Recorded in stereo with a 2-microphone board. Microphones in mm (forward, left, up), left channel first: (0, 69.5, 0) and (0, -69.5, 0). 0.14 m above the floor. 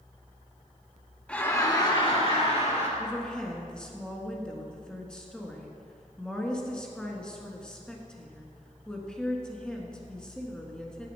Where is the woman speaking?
5° left (ahead or behind), 1.4 m.